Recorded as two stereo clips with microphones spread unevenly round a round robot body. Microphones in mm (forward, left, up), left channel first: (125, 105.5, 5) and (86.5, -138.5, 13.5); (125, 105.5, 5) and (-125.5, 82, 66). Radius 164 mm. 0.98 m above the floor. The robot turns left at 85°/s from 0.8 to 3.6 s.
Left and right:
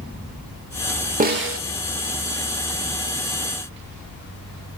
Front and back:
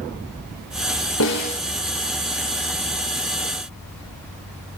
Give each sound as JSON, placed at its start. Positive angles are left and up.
{"t": 1.2, "sound": "a snare drum", "azimuth_deg": -40, "distance_m": 1.6}